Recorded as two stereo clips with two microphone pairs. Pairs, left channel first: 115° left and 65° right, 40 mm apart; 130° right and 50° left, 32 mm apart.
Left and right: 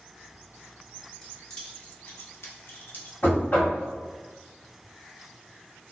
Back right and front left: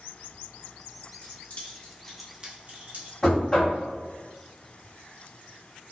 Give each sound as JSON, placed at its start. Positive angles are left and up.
{"t": 1.2, "sound": "keys jangling", "azimuth_deg": -165, "distance_m": 1.8}
{"t": 3.2, "sound": "knocking", "azimuth_deg": 155, "distance_m": 1.7}